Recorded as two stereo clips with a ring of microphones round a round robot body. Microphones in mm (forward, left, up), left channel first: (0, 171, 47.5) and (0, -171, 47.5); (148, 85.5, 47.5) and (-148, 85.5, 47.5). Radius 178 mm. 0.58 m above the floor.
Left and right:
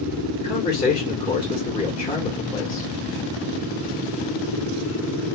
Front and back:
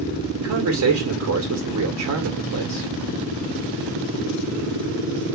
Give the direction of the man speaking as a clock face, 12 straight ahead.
6 o'clock.